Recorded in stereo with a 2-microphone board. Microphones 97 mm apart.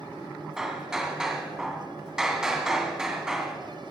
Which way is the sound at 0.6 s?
5° right (ahead or behind).